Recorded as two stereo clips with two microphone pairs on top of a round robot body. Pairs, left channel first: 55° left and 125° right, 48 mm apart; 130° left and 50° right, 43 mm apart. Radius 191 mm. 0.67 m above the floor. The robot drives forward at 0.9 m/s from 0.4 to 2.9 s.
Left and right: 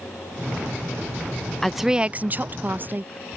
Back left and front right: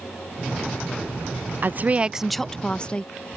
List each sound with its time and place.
1.6 s a woman speaking: 25° right; by 3.1 s 170° right